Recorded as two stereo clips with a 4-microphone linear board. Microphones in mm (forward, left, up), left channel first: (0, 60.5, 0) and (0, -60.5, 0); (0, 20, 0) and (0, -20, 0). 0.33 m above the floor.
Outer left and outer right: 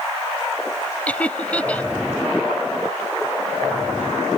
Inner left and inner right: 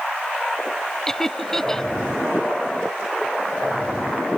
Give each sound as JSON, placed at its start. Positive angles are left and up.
{"t": 1.1, "sound": "laughter", "side_deg": 10}